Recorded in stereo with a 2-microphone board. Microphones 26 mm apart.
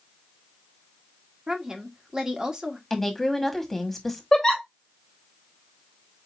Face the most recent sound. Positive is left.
turn(degrees=15)  # may be behind; listen again after turning